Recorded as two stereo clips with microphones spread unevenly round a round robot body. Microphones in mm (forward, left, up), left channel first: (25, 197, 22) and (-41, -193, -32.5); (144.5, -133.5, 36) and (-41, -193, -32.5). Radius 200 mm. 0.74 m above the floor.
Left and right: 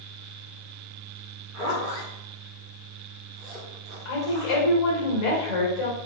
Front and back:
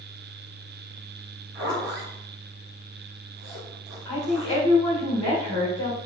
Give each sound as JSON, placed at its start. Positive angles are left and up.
{"t": 1.5, "sound": "a zipper", "azimuth_deg": 165, "distance_m": 2.5}
{"t": 4.0, "sound": "a woman speaking", "azimuth_deg": 65, "distance_m": 2.5}